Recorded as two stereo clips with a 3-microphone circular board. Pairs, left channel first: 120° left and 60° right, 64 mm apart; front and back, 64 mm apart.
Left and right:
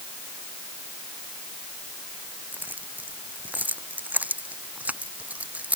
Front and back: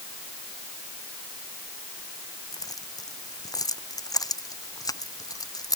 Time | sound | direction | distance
2.5 | keys jangling | straight ahead | ?